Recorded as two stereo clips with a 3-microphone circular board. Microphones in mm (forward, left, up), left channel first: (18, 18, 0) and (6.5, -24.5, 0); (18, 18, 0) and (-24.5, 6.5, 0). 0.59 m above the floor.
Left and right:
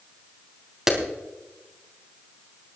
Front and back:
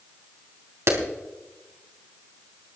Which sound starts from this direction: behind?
A clap, at 0.9 s.